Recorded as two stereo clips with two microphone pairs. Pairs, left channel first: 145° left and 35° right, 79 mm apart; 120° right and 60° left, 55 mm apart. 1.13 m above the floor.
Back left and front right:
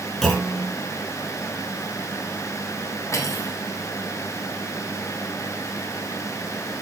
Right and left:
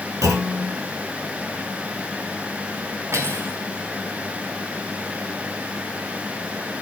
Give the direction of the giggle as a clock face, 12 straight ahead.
I don't hear a giggle.